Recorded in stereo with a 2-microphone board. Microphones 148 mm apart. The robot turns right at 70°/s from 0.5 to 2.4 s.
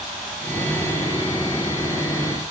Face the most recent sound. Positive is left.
No sound to turn to.